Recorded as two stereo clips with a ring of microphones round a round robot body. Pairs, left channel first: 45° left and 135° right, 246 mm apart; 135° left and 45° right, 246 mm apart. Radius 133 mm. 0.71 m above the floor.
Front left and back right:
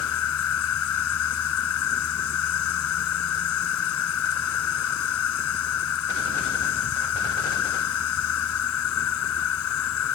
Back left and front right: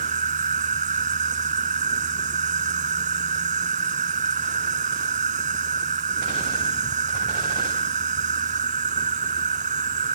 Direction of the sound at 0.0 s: 15° left.